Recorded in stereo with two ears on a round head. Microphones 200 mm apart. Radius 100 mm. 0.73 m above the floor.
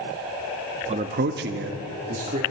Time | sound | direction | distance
0.9 | a man speaking | 30° right (ahead or behind) | 0.7 m